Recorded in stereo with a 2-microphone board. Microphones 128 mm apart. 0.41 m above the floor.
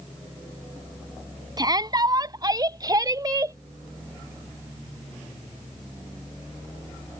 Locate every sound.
1.6 s a shout: 30° right (ahead or behind)